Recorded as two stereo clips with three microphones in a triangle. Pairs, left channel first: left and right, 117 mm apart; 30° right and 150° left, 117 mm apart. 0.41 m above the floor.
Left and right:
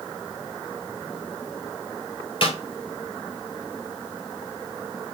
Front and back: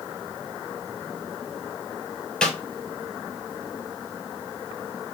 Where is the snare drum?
55° left, 1.5 m.